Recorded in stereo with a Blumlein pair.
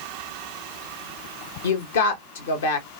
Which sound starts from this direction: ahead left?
A woman speaking, at 1.6 s.